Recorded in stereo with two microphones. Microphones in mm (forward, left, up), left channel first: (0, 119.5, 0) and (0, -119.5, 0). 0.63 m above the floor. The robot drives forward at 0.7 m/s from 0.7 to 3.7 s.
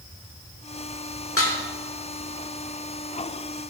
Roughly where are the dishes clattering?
Left.